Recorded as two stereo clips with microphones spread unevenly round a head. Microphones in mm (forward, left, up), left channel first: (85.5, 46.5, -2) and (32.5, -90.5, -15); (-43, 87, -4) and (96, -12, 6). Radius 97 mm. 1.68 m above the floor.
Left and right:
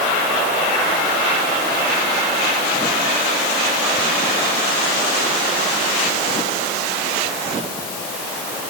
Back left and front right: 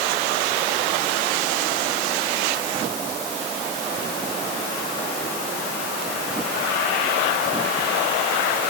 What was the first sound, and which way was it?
Only background noise.